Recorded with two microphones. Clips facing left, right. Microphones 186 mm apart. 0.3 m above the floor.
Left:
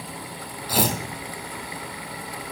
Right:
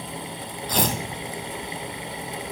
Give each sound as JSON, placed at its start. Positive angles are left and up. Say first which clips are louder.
{"t": 0.7, "sound": "tearing paper", "louder": "left 1 dB", "side_deg": 5, "distance_m": 1.8}